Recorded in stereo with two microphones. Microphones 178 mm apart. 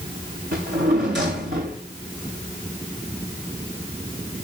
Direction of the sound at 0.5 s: 70° right (ahead or behind).